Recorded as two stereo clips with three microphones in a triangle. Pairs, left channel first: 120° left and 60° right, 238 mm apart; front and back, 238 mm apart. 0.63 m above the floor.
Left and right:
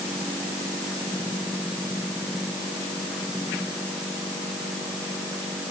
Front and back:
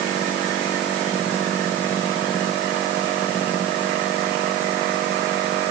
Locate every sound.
Only background noise.